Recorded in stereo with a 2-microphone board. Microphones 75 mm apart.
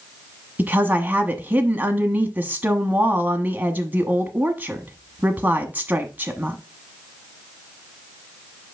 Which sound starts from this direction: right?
A woman speaking, at 0.6 s.